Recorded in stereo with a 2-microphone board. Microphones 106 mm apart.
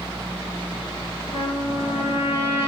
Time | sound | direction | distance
1.3 | a trumpet | 70° left (ahead or behind) | 4.5 m